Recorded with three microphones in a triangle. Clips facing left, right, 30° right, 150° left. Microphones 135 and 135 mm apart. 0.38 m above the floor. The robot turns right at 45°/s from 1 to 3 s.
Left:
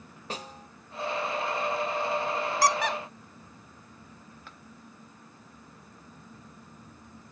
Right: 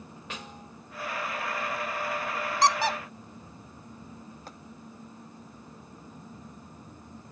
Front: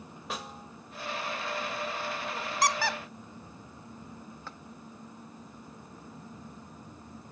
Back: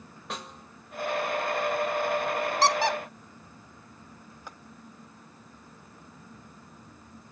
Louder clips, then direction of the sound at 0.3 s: Left 4 dB, even; 55° left.